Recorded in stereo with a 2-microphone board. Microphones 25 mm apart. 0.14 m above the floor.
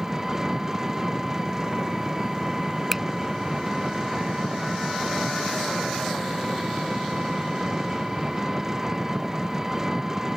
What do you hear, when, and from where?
0.0 s an engine running: 15° right (ahead or behind)
2.9 s a finger snap: 10° right (ahead or behind)